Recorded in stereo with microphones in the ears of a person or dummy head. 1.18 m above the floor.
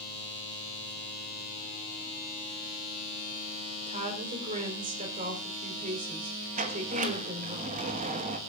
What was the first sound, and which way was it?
A woman speaking, 40° right (ahead or behind).